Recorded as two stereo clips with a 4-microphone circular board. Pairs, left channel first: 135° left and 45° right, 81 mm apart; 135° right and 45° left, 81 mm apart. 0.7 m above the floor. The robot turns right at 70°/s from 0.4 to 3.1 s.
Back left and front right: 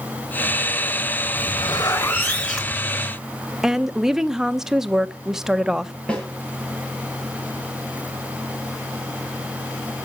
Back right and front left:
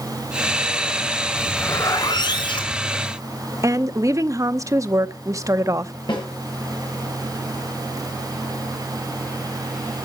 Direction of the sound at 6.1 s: 150° right.